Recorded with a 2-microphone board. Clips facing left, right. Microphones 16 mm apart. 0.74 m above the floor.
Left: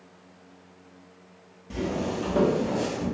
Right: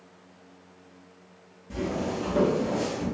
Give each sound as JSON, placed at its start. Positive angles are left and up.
{"t": 1.7, "sound": "footsteps", "side_deg": 25, "distance_m": 0.9}